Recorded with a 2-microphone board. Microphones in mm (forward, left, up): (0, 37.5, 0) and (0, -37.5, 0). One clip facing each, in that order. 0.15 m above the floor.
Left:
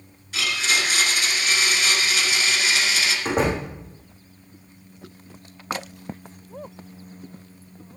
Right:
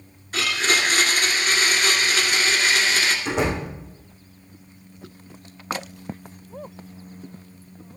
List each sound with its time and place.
0.3 s a blender: 45° right (ahead or behind), 2 m
3.2 s a door slam: 45° left (ahead or behind), 6.5 m